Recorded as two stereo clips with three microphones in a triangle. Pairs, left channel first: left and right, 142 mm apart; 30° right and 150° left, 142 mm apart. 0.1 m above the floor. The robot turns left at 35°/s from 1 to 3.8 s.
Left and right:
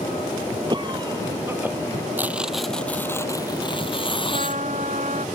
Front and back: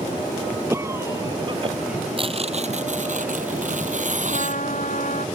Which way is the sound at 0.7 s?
140° right.